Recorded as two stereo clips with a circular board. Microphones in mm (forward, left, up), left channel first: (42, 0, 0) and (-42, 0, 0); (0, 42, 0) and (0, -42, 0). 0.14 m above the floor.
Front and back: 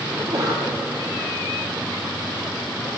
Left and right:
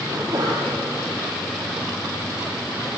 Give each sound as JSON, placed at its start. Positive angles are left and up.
{"t": 0.1, "sound": "a sneeze", "azimuth_deg": -135, "distance_m": 6.5}